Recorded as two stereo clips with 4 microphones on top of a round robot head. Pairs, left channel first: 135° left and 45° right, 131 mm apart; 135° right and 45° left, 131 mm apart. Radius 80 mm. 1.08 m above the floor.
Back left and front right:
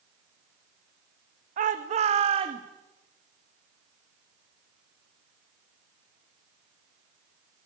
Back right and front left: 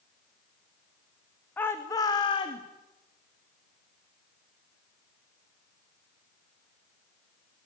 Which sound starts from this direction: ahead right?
A shout, at 1.6 s.